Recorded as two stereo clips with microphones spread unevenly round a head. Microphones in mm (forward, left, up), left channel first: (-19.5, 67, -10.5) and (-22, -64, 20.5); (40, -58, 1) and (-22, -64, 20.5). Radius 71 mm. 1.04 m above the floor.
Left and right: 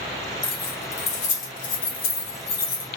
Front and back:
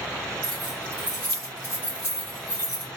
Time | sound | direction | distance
0.4 | keys jangling | 145° left | 1.1 m